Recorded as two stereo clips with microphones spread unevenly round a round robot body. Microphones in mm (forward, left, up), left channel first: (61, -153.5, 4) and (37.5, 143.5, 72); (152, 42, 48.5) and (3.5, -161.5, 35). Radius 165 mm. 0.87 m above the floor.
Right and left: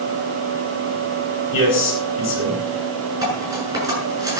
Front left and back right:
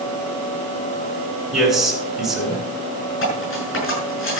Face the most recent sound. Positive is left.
turn(degrees=15)